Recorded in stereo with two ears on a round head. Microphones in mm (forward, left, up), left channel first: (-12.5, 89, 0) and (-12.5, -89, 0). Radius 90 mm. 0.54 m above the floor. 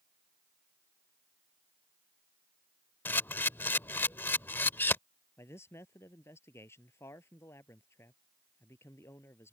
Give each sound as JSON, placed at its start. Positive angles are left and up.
{"t": 3.0, "sound": "a camera shutter", "side_deg": 10}
{"t": 5.4, "sound": "a man speaking", "side_deg": 15}